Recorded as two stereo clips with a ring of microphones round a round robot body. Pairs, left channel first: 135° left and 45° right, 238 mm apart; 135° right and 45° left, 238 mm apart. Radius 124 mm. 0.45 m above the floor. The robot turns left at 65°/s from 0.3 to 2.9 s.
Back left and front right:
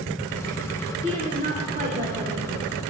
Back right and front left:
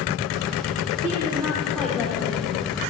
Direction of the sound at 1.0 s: 5° left.